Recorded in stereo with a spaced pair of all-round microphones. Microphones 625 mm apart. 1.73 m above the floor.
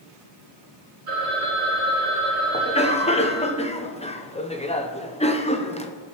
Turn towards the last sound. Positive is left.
turn(degrees=10)  # may be behind; listen again after turning